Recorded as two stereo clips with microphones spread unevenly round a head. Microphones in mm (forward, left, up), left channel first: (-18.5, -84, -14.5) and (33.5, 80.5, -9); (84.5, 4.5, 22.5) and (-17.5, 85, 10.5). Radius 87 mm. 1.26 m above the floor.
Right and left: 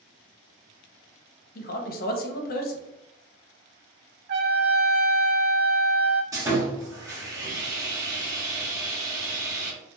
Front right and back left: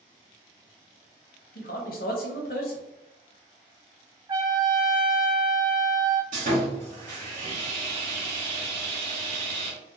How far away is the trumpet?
About 0.5 m.